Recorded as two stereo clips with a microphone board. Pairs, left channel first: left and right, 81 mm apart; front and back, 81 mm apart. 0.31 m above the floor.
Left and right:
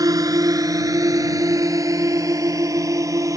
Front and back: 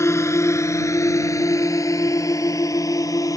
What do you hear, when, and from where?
0.0 s a drone: 50° right; by 3.4 s 45° right